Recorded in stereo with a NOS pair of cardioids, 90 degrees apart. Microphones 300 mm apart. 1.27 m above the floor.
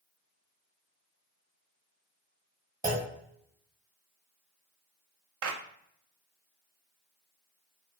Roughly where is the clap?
Ahead right.